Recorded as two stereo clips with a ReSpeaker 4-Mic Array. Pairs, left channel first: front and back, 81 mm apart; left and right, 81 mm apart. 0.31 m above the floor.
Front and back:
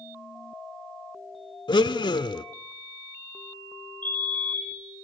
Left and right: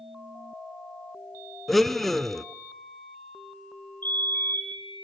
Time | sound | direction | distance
1.7 | a blender | 5° left | 0.7 m
4.0 | a fire alarm | 45° left | 2.5 m